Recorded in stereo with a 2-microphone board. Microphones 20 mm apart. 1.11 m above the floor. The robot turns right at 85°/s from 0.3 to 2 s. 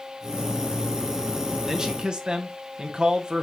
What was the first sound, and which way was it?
A man speaking, 20° right (ahead or behind).